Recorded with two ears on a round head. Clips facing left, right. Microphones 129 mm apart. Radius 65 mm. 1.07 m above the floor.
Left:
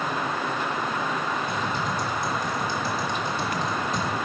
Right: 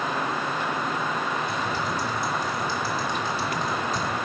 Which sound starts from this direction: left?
Typing on a keyboard, at 1.5 s.